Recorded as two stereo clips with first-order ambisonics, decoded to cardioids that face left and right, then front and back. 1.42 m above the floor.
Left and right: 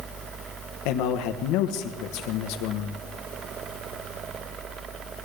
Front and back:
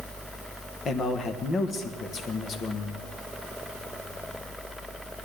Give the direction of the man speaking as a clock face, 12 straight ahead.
10 o'clock.